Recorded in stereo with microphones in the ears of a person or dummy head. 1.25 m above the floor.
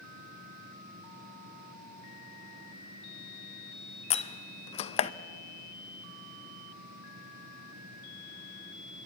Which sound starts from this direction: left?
A door slam, at 4.1 s.